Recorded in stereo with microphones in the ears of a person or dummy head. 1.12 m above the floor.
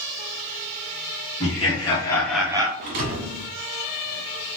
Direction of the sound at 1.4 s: 30° left (ahead or behind).